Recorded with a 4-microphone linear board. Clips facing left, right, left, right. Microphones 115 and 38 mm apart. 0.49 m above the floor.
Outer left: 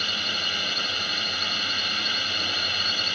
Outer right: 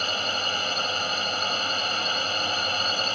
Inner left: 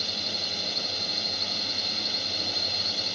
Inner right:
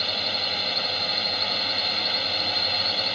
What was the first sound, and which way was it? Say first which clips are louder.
A drone: outer right 4 dB, inner right 5 dB; 35° right (ahead or behind).